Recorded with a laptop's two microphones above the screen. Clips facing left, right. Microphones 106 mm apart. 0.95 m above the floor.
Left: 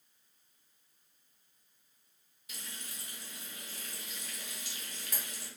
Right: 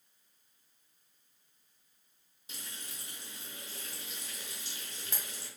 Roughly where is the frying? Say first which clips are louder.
Even; right.